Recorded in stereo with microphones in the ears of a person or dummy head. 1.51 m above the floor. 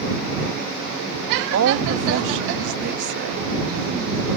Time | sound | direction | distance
1.5 | a woman speaking | 85° right | ?